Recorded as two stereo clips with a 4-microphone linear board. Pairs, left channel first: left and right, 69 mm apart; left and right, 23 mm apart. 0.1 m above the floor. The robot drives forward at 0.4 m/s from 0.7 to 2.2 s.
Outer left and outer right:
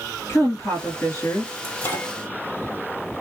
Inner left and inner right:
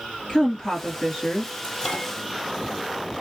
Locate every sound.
0.3 s a woman speaking: 35° left (ahead or behind), 1.9 m; by 1.5 s 40° left (ahead or behind), 1.8 m
1.6 s a microwave: 25° left (ahead or behind), 2 m